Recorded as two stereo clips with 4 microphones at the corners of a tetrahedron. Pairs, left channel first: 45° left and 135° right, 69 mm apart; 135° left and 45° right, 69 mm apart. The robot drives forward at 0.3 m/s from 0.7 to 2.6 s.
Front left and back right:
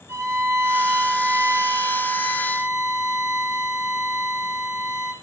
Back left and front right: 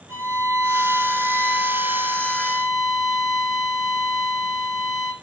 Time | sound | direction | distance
0.1 | a violin | 85° right | 0.6 m